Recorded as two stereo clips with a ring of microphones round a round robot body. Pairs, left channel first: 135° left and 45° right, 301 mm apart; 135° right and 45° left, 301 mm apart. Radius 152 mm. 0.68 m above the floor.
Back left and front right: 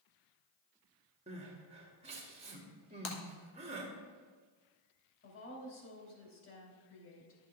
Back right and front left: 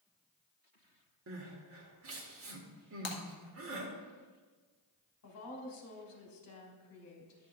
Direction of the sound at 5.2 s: 175° right.